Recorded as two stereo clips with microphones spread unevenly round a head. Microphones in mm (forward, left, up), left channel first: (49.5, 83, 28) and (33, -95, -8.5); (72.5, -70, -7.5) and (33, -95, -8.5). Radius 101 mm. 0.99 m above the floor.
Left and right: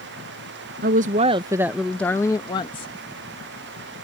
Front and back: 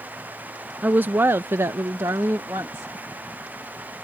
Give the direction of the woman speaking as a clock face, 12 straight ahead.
3 o'clock.